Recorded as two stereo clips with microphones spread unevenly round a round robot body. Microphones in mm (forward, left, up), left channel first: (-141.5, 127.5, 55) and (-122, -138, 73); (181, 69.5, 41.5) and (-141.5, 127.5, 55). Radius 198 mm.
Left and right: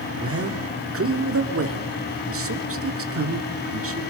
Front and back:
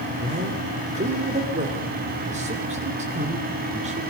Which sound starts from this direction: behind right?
A man speaking, at 0.2 s.